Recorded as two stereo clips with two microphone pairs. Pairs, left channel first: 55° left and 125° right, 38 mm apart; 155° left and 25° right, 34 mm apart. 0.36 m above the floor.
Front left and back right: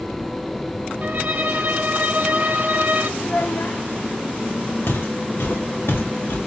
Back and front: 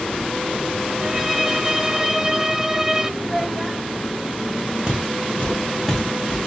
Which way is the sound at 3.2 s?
65° left.